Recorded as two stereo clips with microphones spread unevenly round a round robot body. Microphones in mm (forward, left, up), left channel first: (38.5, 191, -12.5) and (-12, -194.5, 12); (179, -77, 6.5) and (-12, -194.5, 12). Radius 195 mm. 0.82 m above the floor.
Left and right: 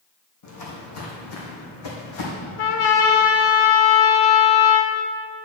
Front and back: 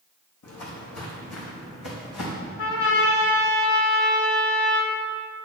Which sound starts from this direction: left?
A trumpet, at 2.6 s.